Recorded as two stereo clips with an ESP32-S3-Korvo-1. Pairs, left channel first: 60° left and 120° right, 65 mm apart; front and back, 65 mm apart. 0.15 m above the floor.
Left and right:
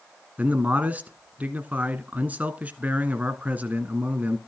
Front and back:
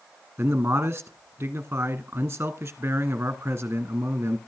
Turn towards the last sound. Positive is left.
turn(degrees=-160)